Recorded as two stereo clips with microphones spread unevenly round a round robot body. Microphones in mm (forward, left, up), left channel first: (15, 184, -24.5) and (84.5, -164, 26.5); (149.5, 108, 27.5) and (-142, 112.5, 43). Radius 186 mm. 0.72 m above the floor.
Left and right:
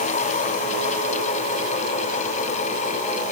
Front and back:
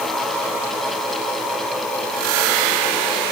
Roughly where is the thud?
No thud in this recording.